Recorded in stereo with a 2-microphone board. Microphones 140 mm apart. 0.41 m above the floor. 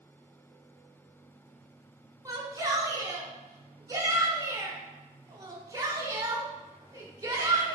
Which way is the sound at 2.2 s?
25° right (ahead or behind).